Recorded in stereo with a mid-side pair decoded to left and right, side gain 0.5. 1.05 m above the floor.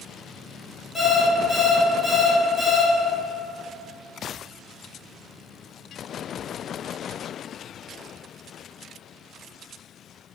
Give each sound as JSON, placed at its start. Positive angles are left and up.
{"t": 0.9, "sound": "an alarm clock", "azimuth_deg": 0, "distance_m": 1.7}